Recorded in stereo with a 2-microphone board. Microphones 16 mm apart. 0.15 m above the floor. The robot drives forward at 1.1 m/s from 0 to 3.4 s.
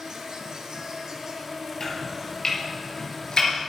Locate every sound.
0.0 s an insect: 60° right (ahead or behind), 1.4 m; by 3.7 s 20° right (ahead or behind), 4 m
1.8 s chopping: 35° left (ahead or behind), 4 m; by 3.5 s 50° left (ahead or behind), 2.5 m